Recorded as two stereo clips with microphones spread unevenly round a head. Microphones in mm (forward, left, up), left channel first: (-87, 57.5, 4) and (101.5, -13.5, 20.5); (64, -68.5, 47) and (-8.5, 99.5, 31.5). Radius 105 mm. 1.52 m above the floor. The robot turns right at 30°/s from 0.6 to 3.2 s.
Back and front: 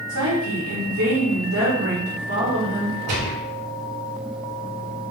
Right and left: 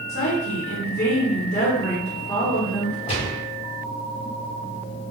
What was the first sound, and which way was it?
A woman speaking, 35° right.